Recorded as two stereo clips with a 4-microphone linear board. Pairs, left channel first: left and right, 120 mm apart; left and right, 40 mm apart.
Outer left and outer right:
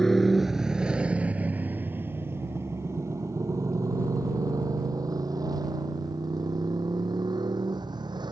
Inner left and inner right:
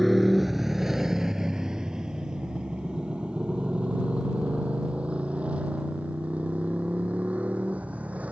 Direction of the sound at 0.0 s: 5° left (ahead or behind).